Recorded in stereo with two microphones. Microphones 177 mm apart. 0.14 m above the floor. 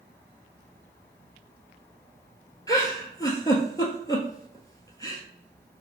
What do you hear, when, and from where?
2.7 s a giggle: 20° left (ahead or behind), 0.6 m